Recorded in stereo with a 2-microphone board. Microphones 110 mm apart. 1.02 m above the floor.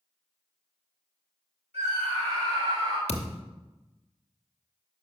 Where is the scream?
80° right, 4 m; by 3.0 s 65° right (ahead or behind), 3.5 m.